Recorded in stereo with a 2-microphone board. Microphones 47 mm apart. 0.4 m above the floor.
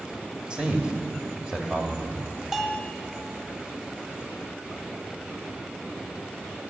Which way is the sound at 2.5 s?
10° right (ahead or behind).